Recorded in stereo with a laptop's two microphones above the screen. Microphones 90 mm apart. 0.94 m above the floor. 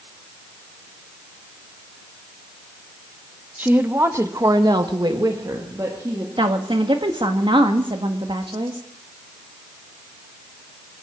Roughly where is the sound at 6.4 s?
Right.